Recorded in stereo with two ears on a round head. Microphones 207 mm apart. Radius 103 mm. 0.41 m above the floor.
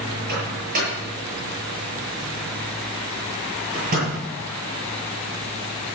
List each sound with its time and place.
0.3 s a microwave: 40° right (ahead or behind), 9 m